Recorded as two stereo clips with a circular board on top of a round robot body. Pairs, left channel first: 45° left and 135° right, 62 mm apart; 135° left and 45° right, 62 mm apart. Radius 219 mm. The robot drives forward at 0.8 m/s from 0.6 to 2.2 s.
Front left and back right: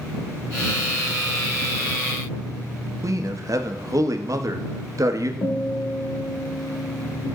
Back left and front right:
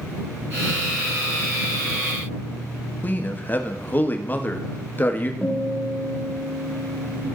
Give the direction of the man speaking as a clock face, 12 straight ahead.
6 o'clock.